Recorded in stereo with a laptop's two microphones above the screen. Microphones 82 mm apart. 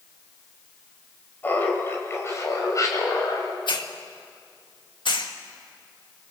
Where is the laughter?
20° left (ahead or behind), 5 m; by 3.6 s 50° left (ahead or behind), 5.5 m.